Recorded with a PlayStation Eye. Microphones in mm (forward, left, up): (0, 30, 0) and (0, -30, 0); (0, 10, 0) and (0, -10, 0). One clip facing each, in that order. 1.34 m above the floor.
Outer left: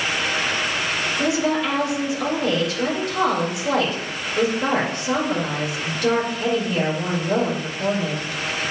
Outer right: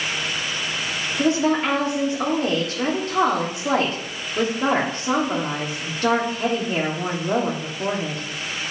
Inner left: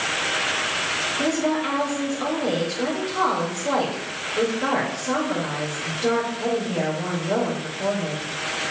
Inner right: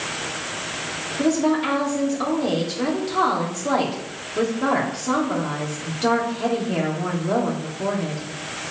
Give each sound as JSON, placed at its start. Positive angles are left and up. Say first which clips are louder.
{"t": 1.2, "sound": "a woman speaking", "louder": "outer right 3 dB, inner right 6 dB", "side_deg": -35, "distance_m": 2.5}